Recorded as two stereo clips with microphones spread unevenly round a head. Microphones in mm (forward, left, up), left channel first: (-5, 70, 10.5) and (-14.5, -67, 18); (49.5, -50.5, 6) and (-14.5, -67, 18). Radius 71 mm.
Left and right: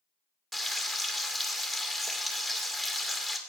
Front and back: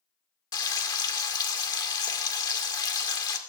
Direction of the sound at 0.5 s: 5° right.